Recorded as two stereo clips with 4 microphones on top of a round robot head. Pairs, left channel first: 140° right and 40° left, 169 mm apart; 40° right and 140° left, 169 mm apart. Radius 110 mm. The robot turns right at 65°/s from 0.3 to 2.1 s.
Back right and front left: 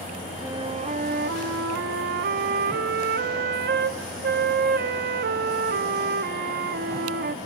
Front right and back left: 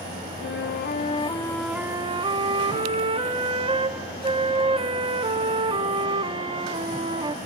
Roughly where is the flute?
Ahead right.